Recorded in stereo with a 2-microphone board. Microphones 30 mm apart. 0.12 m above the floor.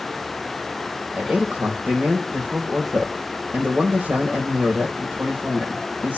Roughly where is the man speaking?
Right.